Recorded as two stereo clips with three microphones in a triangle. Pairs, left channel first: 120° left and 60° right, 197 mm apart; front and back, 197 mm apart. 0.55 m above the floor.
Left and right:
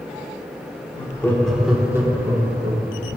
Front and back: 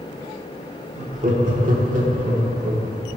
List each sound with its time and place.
0.9 s laughter: 160° left, 0.9 m; by 3.0 s 125° right, 2.5 m